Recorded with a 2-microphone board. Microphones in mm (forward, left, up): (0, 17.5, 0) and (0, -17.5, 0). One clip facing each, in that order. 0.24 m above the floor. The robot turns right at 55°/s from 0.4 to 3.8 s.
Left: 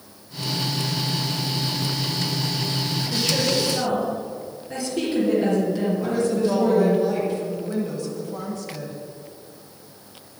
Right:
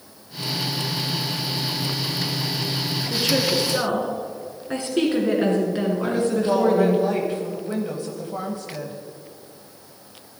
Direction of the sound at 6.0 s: 30° right (ahead or behind).